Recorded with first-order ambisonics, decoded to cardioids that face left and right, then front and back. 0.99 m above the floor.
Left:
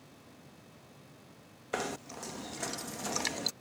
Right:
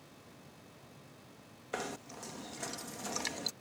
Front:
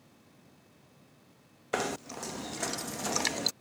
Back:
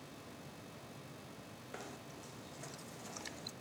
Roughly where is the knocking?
Ahead.